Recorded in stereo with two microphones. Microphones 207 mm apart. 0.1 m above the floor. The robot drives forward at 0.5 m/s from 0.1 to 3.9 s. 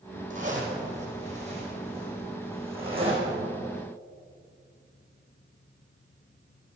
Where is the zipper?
35° right (ahead or behind), 3 m; by 3.4 s 25° right (ahead or behind), 4 m.